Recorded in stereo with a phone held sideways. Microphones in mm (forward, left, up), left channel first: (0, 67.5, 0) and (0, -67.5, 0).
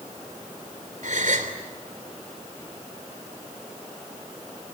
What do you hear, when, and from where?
1.0 s a gasp: 65° right (ahead or behind), 3.5 m